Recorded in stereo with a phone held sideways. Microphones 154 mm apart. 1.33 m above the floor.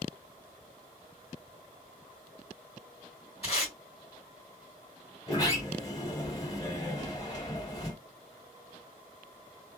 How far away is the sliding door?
About 1.2 m.